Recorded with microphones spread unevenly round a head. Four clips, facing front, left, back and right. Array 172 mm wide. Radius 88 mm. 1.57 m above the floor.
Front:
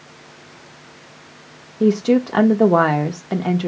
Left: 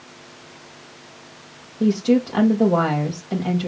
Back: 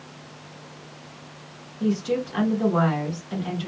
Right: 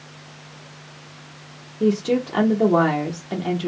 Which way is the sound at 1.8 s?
Straight ahead.